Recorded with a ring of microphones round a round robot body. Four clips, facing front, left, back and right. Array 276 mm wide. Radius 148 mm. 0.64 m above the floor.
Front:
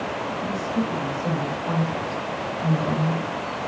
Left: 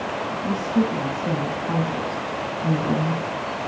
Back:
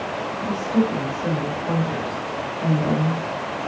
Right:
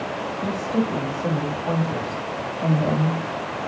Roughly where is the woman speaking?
Behind right.